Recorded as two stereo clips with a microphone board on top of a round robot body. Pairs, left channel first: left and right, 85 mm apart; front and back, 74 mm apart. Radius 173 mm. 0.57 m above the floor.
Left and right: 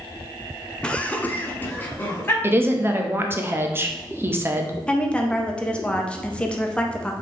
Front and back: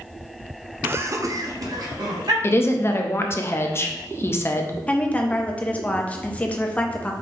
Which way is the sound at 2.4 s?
40° right.